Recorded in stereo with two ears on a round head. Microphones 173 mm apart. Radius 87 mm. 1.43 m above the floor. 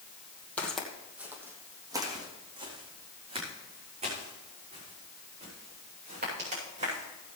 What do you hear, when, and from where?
0.6 s footsteps: 10° left (ahead or behind), 2 m; by 7.4 s 40° right (ahead or behind), 10.5 m